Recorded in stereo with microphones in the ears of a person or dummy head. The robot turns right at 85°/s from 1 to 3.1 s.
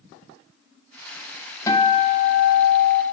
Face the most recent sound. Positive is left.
turn(degrees=135)